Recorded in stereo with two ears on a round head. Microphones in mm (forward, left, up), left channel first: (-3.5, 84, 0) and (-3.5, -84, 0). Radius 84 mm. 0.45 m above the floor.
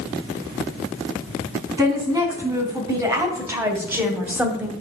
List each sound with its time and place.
1.8 s a woman speaking: 20° right (ahead or behind), 4 m; by 4.7 s 5° right (ahead or behind), 1.9 m